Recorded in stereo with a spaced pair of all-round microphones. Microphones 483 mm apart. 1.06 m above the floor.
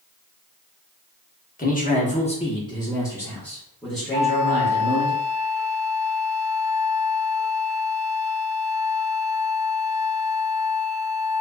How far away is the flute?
About 1.2 m.